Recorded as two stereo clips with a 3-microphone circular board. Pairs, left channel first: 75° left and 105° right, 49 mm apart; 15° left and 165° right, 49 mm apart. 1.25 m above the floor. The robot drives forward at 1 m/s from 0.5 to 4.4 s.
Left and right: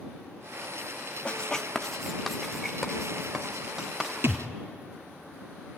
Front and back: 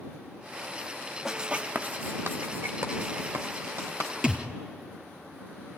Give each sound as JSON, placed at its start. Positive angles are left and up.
{"t": 1.2, "sound": "writing", "azimuth_deg": 115, "distance_m": 0.7}
{"t": 4.2, "sound": "a thud", "azimuth_deg": -105, "distance_m": 1.8}